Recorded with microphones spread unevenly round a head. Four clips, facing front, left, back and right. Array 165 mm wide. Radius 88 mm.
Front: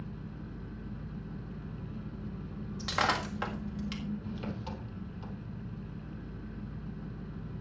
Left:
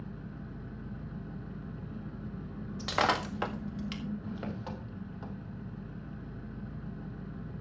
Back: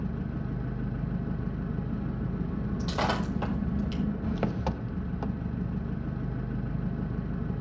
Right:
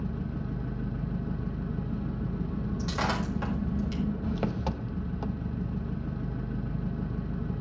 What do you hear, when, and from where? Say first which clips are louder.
0.0 s an engine running: right 9 dB, back 9 dB; 140° right, 0.9 m
2.8 s breaking glass: left 3 dB, even; 120° left, 1.7 m